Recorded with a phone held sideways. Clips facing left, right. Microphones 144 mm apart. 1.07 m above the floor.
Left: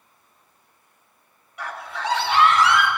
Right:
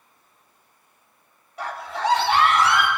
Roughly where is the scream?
Right.